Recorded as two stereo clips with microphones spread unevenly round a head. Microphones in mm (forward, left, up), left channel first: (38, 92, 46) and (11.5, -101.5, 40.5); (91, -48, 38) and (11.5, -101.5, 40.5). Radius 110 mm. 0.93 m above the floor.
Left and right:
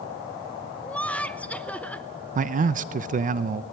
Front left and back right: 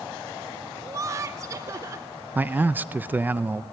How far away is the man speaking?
About 0.7 m.